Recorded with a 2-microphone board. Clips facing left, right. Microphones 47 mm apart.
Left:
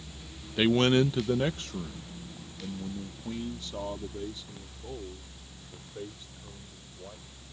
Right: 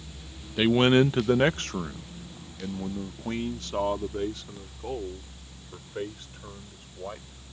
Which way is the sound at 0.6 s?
Centre (ahead or behind).